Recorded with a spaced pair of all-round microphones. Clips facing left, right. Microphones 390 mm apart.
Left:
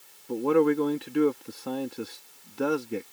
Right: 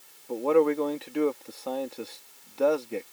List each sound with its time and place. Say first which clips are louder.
0.3 s a man speaking: even; 25° left (ahead or behind)